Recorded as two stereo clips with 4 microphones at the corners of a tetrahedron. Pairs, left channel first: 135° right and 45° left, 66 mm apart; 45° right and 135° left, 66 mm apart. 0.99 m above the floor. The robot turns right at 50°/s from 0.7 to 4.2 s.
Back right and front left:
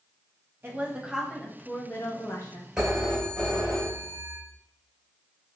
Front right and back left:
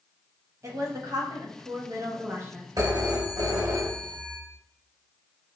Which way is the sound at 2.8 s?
125° left.